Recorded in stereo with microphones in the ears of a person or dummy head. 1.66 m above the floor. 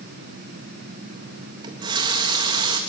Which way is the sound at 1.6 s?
25° right (ahead or behind).